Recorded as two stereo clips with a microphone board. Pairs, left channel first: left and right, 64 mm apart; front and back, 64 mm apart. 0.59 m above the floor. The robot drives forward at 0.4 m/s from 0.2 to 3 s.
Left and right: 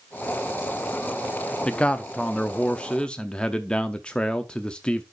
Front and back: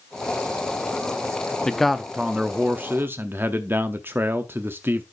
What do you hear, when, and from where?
1.6 s a man speaking: 60° left, 0.6 m; by 5.0 s 155° left, 0.8 m